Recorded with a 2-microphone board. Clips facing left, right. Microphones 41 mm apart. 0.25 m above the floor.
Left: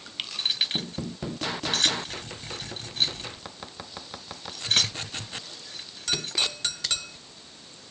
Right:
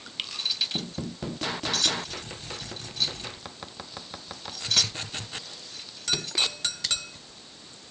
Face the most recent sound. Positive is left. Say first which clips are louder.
# left 3 dB
turn(degrees=50)  # may be behind; listen again after turning